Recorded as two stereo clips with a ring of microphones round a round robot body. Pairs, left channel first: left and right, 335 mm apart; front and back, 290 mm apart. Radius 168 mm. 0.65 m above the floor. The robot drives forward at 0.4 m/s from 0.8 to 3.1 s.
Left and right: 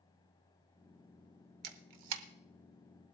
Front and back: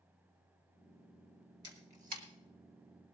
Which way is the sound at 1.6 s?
100° right.